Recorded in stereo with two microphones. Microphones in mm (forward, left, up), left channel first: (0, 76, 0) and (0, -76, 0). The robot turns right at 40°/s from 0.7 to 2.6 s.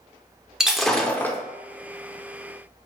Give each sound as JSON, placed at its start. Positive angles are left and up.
{"t": 0.6, "sound": "breaking glass", "side_deg": -5, "distance_m": 0.6}